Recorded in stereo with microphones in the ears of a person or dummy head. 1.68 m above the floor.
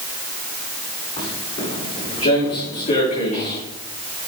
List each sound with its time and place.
1.2 s footsteps: 35° left (ahead or behind), 8 m